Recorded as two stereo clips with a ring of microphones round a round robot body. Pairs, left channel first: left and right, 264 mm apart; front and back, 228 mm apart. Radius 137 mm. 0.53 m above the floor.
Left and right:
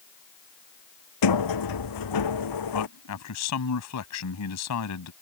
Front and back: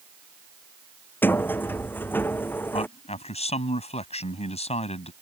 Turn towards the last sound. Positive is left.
turn(degrees=65)